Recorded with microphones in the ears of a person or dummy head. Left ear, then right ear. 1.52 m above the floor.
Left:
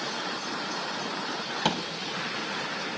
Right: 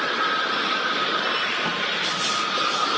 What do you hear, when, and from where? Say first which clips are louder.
1.6 s a thud: right 2 dB; 30° left (ahead or behind), 1.9 m